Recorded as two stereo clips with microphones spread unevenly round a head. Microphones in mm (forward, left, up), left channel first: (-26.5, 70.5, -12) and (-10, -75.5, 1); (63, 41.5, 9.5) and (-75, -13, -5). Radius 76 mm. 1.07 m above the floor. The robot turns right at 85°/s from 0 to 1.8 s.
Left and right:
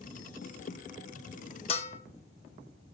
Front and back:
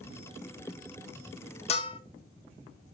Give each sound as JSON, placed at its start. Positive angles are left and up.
{"t": 1.7, "sound": "a bell", "azimuth_deg": 65, "distance_m": 0.6}